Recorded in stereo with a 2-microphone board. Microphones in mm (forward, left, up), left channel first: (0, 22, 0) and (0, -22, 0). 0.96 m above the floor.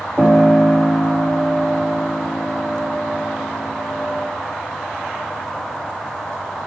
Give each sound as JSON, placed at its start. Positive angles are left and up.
{"t": 0.2, "sound": "a piano", "side_deg": 25, "distance_m": 1.1}